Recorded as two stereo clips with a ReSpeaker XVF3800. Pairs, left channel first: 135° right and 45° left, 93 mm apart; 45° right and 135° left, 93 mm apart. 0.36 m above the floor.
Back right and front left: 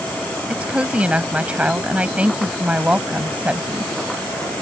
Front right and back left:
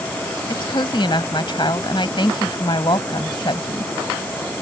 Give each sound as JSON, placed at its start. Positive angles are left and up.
{"t": 0.5, "sound": "a woman speaking", "azimuth_deg": -30}